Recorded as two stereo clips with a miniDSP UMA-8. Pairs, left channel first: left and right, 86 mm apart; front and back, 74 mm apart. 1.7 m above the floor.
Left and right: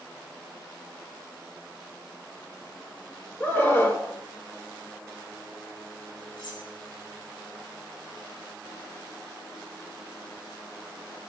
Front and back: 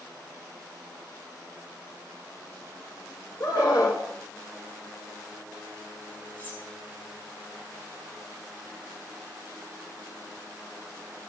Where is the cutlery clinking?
65° left, 10 m.